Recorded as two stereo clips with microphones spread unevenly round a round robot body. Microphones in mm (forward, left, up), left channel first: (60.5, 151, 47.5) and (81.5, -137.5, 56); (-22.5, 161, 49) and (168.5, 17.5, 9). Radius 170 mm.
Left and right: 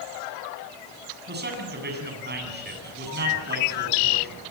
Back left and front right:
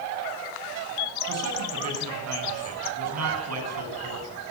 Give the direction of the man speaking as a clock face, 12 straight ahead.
1 o'clock.